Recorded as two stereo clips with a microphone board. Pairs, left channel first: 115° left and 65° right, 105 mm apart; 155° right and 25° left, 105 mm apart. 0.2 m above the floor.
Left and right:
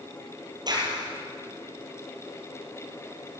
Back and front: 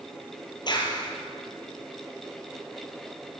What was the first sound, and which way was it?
A clap, 115° right.